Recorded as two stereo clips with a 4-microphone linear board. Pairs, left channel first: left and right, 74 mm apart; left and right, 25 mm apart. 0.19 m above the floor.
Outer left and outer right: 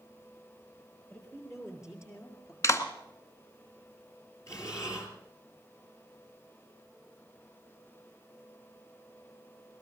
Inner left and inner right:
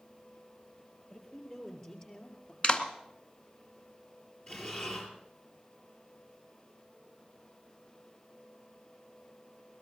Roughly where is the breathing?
Left.